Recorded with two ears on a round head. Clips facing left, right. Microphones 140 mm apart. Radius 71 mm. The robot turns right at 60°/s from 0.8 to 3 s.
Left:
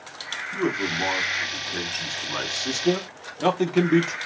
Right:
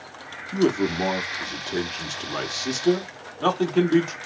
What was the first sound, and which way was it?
A man speaking, 110° right.